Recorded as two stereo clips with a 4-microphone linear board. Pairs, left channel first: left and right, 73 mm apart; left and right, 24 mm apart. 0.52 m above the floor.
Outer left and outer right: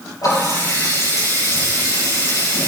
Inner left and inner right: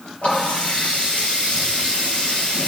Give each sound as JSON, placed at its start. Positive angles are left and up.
{"t": 0.2, "sound": "a running tap", "side_deg": 55, "distance_m": 9.0}